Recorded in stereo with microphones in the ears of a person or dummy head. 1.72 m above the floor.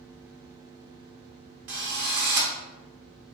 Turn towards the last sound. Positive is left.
turn(degrees=-45)  # may be behind; listen again after turning